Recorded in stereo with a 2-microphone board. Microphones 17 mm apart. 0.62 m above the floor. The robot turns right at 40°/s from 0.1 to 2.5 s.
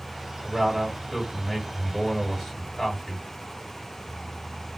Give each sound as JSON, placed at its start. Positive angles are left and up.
{"t": 0.4, "sound": "a man speaking", "azimuth_deg": -65, "distance_m": 1.9}